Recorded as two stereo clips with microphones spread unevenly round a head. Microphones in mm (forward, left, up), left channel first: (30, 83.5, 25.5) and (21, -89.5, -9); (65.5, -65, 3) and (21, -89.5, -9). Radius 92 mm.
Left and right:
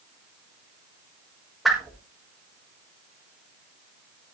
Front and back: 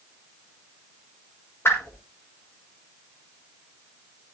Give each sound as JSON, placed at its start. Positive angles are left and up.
{"t": 1.6, "sound": "a whoosh", "azimuth_deg": 0, "distance_m": 4.5}